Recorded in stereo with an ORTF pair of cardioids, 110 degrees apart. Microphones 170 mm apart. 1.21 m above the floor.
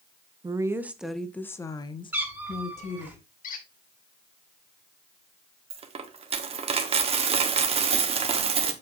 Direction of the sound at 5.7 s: 35° right.